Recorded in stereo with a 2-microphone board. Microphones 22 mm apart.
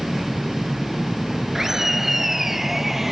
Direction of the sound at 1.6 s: 20° right (ahead or behind).